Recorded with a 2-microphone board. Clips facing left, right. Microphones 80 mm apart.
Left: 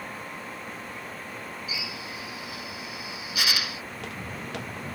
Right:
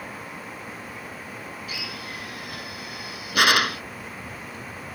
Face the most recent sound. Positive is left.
turn(degrees=80)